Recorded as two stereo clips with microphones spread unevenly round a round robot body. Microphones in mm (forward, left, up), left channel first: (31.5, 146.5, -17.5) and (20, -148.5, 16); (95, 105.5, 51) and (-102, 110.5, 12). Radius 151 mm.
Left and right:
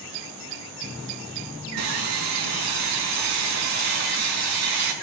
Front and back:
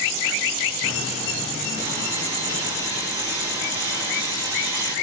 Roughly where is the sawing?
Right.